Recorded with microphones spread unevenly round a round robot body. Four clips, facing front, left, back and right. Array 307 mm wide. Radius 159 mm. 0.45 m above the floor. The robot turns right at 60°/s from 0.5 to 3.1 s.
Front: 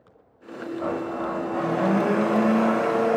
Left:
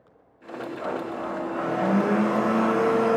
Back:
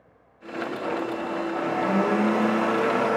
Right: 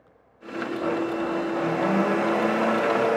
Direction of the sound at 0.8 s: 55° right.